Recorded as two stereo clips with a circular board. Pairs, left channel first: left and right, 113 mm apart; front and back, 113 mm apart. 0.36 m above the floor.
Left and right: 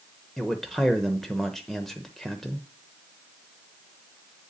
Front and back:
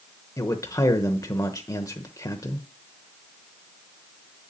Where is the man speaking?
10° left, 0.9 m.